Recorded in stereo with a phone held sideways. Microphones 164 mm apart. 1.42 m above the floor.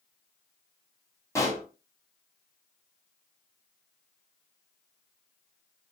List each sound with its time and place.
1.4 s a pop: 20° left (ahead or behind), 0.8 m